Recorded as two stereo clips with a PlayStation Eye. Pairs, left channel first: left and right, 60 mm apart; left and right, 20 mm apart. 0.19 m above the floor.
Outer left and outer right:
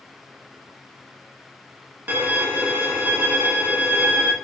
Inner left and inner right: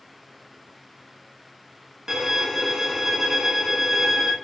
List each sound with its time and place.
2.1 s a violin: 30° right (ahead or behind), 0.6 m